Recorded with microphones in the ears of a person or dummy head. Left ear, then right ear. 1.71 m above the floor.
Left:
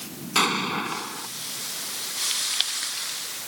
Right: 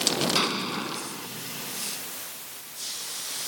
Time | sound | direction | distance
0.3 | an explosion | 25° left (ahead or behind) | ?